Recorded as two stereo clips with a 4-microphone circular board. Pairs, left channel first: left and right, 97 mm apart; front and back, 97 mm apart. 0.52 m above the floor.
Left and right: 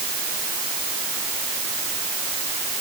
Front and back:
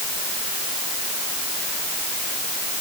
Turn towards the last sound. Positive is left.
No sound to turn to.